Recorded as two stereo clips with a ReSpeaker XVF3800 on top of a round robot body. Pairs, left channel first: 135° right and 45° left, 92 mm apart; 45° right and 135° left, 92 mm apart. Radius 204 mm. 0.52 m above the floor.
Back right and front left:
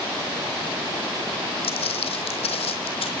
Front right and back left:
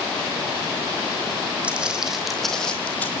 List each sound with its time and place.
1.6 s footsteps: 150° right, 2 m; by 3.1 s 120° right, 1.7 m